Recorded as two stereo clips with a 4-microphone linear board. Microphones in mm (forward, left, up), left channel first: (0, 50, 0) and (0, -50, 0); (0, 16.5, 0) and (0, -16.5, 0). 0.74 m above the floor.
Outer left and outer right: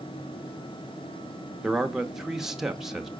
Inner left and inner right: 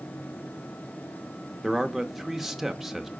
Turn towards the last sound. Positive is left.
turn(degrees=-5)  # may be behind; listen again after turning